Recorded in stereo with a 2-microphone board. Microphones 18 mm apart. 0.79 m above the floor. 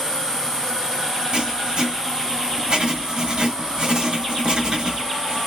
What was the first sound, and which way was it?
Writing, 55° right (ahead or behind).